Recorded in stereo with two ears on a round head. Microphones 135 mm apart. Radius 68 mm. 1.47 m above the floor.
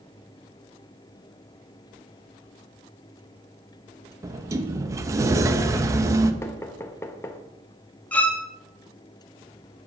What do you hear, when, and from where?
4.2 s a sliding door: 20° right (ahead or behind), 0.7 m
6.4 s knocking: 15° left (ahead or behind), 0.9 m
8.1 s a violin: 10° left (ahead or behind), 1.0 m